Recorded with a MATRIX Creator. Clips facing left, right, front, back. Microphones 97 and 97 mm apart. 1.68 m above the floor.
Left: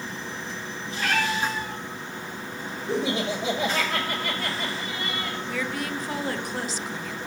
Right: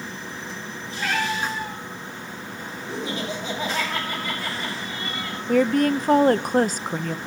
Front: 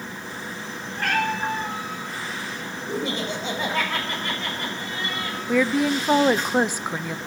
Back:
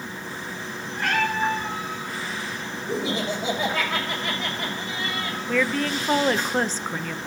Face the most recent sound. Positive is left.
turn(degrees=-75)